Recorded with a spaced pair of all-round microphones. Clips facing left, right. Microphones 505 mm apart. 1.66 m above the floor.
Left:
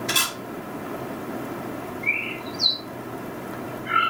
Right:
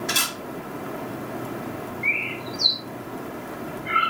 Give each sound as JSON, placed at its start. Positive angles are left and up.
{"t": 0.1, "sound": "a camera shutter", "side_deg": 30, "distance_m": 1.6}
{"t": 2.0, "sound": "a bird", "side_deg": -25, "distance_m": 1.1}